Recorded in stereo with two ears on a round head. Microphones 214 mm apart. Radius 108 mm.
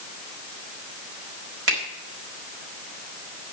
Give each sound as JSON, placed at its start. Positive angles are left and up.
{"t": 1.7, "sound": "a finger snap", "side_deg": -55, "distance_m": 4.0}